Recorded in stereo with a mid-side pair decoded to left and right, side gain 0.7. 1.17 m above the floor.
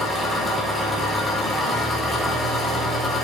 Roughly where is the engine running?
Ahead.